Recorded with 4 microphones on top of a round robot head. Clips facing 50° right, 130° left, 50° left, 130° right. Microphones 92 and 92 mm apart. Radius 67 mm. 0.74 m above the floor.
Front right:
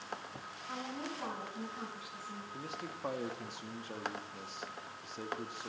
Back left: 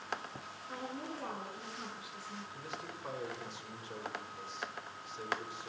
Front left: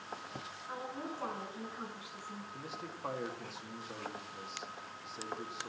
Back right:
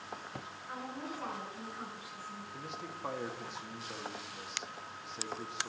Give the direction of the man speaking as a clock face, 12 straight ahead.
1 o'clock.